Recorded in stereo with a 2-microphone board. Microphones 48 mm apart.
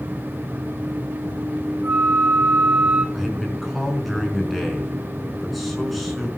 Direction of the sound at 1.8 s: 50° right (ahead or behind).